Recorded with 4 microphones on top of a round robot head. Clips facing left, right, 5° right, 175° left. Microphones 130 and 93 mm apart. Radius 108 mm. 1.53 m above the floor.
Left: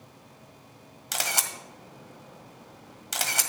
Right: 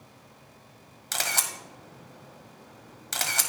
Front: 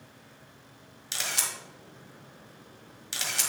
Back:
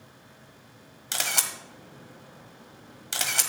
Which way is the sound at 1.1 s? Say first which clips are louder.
Even, back 3 dB; 165° left.